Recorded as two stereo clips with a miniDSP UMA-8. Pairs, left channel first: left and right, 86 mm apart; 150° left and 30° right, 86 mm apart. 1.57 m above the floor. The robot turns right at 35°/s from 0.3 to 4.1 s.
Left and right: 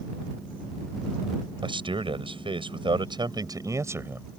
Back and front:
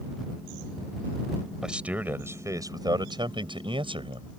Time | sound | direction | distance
1.6 | a man speaking | 115° right | ?